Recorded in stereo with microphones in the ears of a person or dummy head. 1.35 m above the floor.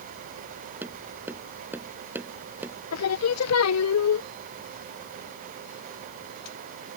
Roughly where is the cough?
I don't hear a cough.